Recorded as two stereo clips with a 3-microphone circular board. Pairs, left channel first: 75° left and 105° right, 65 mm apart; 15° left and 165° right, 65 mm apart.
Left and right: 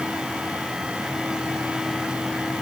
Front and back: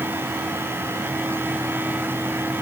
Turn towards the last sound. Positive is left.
No sound to turn to.